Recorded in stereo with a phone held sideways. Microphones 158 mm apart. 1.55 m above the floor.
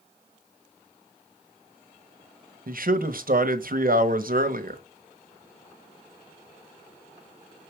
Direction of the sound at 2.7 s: 65° right (ahead or behind).